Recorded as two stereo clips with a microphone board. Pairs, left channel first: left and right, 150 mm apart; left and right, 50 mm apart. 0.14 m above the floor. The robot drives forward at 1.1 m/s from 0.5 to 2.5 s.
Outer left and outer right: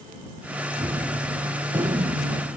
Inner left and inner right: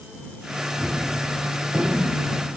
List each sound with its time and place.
0.8 s a gunshot: 30° right (ahead or behind), 1.5 m; by 2.6 s 15° right (ahead or behind), 3 m